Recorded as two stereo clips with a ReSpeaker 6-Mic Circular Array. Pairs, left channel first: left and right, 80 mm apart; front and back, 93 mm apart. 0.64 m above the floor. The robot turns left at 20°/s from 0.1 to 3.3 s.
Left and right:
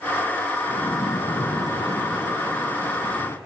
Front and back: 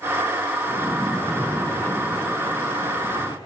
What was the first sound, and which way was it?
A splash, 95° left.